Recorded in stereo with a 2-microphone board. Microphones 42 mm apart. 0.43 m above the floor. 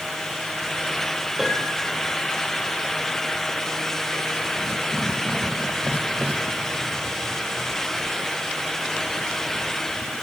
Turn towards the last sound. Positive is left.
turn(degrees=-5)  # may be behind; listen again after turning